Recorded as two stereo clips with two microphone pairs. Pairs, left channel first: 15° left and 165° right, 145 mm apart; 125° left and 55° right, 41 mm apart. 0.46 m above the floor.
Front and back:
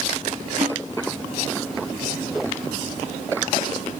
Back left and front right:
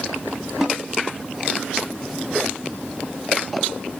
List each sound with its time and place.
0.6 s a snare drum: 140° right, 2.5 m